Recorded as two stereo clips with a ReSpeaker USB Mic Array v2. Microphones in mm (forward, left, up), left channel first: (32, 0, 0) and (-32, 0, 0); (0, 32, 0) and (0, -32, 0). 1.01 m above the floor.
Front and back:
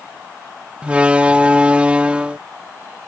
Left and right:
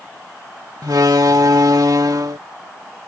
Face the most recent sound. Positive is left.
turn(degrees=-110)